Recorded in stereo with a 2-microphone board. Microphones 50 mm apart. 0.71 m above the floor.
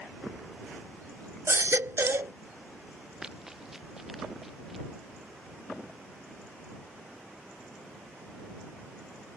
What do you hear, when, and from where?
1.5 s a baby crying: 65° right (ahead or behind)
3.2 s running footsteps: 10° right (ahead or behind); by 4.8 s 5° right (ahead or behind)